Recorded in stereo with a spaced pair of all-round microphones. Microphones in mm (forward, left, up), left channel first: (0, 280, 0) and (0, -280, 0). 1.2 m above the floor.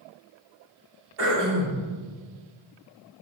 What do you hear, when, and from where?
1.2 s throat clearing: 65° right (ahead or behind), 1.5 m